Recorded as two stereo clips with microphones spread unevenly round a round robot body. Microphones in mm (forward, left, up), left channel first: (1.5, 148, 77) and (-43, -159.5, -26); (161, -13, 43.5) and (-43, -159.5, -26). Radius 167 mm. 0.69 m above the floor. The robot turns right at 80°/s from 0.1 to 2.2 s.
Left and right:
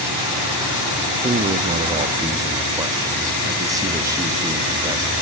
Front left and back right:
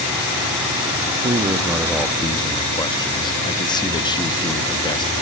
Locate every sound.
1.2 s a man speaking: 125° right, 0.8 m; by 5.1 s 50° right, 0.8 m